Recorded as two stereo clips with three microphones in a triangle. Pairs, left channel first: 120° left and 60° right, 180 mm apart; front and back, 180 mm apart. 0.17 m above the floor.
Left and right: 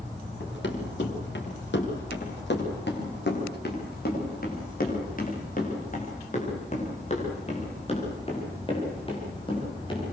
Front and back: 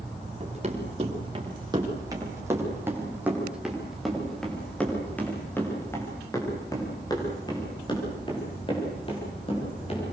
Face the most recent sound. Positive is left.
turn(degrees=55)